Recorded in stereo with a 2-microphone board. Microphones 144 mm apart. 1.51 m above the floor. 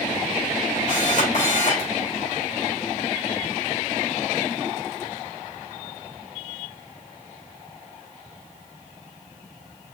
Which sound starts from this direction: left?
A camera shutter, at 0.9 s.